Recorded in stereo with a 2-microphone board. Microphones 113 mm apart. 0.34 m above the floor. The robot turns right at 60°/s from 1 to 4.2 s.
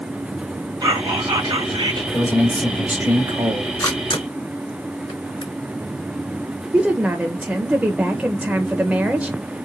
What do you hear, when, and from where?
0.8 s whispering: 120° right, 2 m; by 2.0 s 60° right, 2 m
2.1 s a man speaking: 150° left, 1.5 m; by 3.7 s 115° right, 1.5 m
3.8 s a camera shutter: 30° left (ahead or behind), 3 m; by 5.5 s 55° left (ahead or behind), 3 m
6.7 s a woman speaking: 10° right (ahead or behind), 0.8 m